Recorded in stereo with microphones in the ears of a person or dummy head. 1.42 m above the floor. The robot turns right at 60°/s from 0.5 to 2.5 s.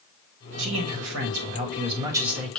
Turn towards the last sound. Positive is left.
turn(degrees=5)